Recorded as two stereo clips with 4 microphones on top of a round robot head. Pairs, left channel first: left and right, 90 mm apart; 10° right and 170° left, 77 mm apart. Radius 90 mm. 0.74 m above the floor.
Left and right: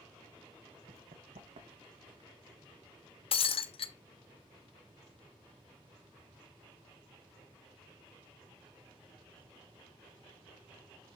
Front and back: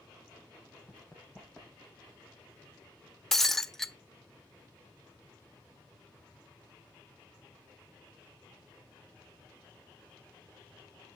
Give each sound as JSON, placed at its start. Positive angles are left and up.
{"t": 0.9, "sound": "running footsteps", "azimuth_deg": -85, "distance_m": 1.4}
{"t": 3.3, "sound": "breaking glass", "azimuth_deg": 75, "distance_m": 0.7}